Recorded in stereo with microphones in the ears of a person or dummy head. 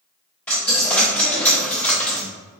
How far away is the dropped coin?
About 0.5 m.